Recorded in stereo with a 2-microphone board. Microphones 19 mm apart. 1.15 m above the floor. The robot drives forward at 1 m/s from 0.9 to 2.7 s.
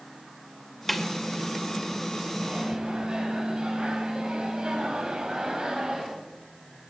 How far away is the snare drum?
About 2.5 m.